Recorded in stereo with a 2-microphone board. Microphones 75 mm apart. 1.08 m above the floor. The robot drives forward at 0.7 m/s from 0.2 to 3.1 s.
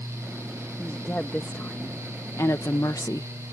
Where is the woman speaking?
25° left (ahead or behind); by 3.3 s 55° left (ahead or behind).